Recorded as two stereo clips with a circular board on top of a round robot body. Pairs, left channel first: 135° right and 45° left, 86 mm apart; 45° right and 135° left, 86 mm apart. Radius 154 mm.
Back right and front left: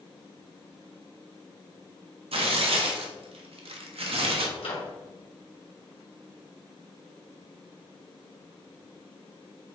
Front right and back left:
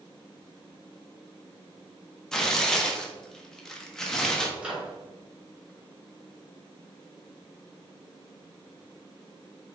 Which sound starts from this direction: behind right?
A microwave, at 4.6 s.